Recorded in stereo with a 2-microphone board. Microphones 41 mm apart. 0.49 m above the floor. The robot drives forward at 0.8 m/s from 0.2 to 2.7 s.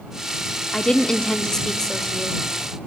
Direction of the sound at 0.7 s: 20° left (ahead or behind).